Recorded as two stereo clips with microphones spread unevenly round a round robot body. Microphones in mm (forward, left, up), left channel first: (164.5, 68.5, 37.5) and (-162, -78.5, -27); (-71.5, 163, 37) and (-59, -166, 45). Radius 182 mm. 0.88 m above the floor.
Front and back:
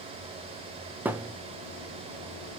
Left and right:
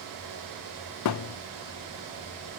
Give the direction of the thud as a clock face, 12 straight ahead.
8 o'clock.